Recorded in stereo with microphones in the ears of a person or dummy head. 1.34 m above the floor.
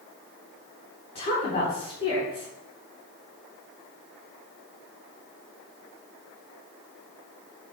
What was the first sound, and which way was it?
A woman speaking, 30° left (ahead or behind).